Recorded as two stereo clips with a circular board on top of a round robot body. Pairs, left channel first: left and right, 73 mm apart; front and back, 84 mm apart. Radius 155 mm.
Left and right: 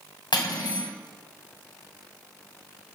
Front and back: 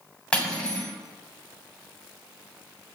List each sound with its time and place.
0.3 s cutlery clinking: 80° left, 2.5 m